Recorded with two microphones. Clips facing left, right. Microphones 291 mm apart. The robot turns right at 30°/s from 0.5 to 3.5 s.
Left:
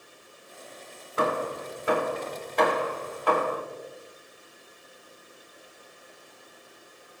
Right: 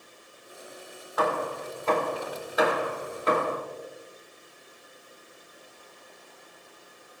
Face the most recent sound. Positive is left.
turn(degrees=-30)  # may be behind; listen again after turning